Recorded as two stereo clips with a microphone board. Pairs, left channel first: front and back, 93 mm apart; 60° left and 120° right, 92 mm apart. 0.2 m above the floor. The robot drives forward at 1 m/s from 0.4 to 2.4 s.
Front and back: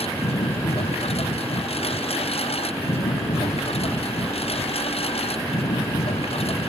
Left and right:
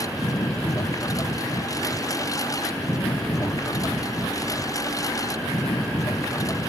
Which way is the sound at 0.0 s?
5° left.